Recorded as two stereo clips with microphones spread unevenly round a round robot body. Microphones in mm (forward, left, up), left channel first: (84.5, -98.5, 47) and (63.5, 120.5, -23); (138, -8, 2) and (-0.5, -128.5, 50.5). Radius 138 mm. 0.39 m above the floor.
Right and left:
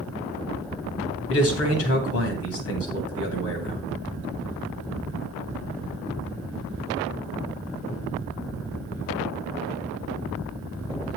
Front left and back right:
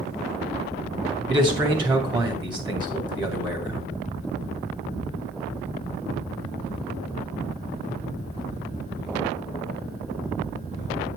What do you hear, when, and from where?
1.3 s a man speaking: 65° right, 2 m